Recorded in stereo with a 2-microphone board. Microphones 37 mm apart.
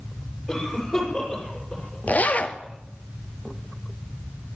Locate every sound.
0.5 s a cough: centre (ahead or behind), 7 m
2.1 s a zipper: 45° left (ahead or behind), 0.9 m